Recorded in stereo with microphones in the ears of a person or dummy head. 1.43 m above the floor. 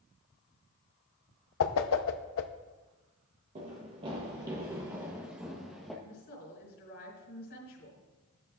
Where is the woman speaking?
60° left (ahead or behind), 4 m.